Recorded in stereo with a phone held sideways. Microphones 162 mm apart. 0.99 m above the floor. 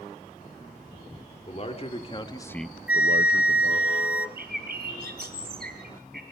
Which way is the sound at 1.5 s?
40° left (ahead or behind).